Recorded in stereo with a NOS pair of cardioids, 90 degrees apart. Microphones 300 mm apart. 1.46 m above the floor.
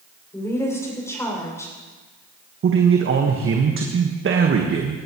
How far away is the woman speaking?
About 6 m.